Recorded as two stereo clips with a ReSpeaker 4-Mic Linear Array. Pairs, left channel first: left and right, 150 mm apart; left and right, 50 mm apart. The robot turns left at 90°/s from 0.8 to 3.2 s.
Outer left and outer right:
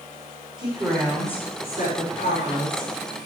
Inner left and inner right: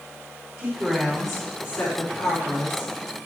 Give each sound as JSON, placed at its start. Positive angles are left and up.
{"t": 0.6, "sound": "a woman speaking", "azimuth_deg": -145, "distance_m": 4.5}